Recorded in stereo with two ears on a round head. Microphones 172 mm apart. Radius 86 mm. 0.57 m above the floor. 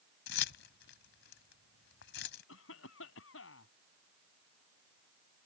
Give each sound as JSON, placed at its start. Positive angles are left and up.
{"t": 0.3, "sound": "keys jangling", "side_deg": 65}
{"t": 2.5, "sound": "a cough", "side_deg": 75}